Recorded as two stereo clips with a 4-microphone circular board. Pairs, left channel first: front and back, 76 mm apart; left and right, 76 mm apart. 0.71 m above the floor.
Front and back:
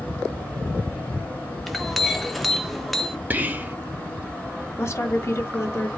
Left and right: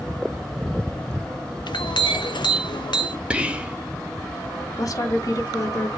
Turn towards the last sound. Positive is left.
turn(degrees=55)